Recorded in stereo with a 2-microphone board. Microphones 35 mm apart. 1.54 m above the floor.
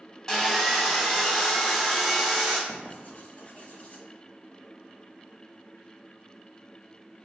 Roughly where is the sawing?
Centre.